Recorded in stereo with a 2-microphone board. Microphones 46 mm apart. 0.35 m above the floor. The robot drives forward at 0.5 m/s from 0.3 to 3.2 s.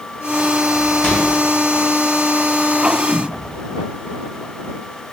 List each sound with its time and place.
1.0 s a microwave: 15° left (ahead or behind), 1.0 m; by 1.3 s 20° left (ahead or behind), 1.0 m
3.1 s a whoosh: 15° left (ahead or behind), 2.0 m